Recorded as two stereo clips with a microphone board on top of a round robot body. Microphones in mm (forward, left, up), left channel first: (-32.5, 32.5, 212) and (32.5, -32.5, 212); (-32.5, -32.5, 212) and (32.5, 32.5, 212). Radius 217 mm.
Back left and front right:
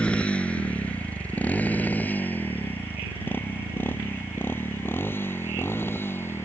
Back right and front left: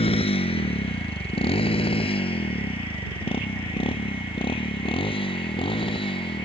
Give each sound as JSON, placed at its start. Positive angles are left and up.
{"t": 0.0, "sound": "a motorcycle", "azimuth_deg": -145}